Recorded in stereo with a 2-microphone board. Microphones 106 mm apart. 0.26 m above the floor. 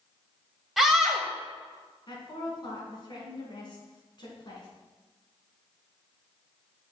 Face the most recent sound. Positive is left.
turn(degrees=45)  # may be behind; listen again after turning